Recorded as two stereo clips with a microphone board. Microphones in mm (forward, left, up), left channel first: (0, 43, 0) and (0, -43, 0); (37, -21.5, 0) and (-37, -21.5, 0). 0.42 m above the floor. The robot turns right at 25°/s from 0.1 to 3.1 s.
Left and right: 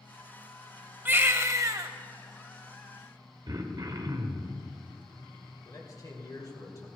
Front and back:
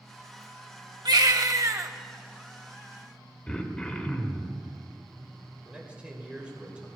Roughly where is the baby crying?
Behind right.